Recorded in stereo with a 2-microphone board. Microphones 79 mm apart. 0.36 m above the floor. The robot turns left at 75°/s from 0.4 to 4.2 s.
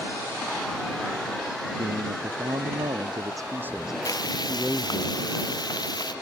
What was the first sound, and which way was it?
A man speaking, 15° right.